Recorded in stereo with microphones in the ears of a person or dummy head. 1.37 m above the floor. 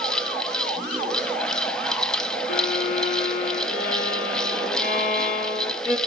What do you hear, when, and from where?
0.0 s a fan: 10° left (ahead or behind), 1.1 m
2.5 s a violin: 55° left (ahead or behind), 4 m